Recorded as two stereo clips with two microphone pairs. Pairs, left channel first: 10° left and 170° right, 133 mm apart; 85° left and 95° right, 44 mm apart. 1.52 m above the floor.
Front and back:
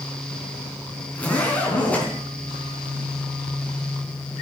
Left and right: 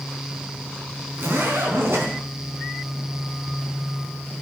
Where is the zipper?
70° right, 4.5 m.